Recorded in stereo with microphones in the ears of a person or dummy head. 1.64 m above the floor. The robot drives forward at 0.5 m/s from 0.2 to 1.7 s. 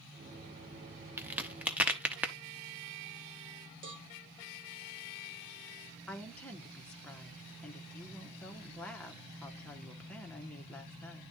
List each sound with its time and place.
1.2 s a crack: 10° right (ahead or behind), 0.6 m
3.8 s a cowbell: 60° right (ahead or behind), 1.2 m
6.1 s a woman speaking: 5° left (ahead or behind), 0.9 m